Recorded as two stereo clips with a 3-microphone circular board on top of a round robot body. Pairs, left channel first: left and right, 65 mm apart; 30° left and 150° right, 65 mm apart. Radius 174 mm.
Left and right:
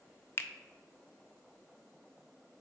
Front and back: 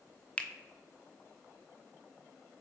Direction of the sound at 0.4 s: 90° left.